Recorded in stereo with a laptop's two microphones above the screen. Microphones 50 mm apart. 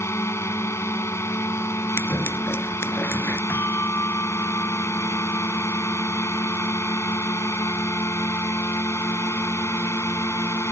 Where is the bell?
65° left (ahead or behind).